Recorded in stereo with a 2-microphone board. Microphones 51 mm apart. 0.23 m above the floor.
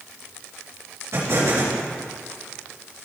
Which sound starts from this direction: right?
An explosion, at 1.1 s.